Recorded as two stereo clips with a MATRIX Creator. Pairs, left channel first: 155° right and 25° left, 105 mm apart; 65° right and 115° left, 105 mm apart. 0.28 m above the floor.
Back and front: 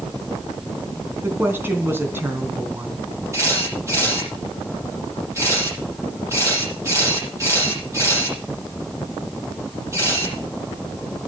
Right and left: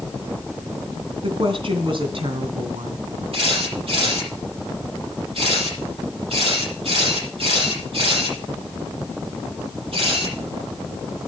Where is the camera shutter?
85° left, 9.5 m.